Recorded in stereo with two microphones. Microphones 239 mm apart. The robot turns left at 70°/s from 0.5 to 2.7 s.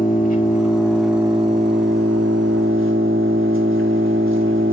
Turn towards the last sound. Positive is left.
turn(degrees=-115)